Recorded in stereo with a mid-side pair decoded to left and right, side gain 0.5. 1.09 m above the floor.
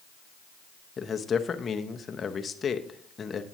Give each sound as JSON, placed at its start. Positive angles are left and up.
{"t": 1.0, "sound": "a man speaking", "azimuth_deg": 40, "distance_m": 0.9}